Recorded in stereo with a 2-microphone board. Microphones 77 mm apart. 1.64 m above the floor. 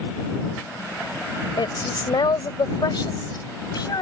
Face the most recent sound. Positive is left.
turn(degrees=60)  # may be behind; listen again after turning